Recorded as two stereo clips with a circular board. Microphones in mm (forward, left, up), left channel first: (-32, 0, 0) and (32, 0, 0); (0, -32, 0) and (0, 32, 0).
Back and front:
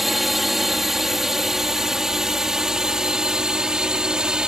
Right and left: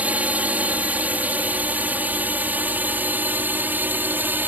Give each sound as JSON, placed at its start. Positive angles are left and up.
{"t": 0.0, "sound": "a drone", "azimuth_deg": 85}